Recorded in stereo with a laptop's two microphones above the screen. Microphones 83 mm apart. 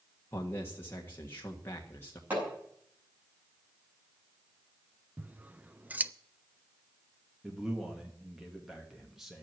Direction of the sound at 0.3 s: 30° left (ahead or behind).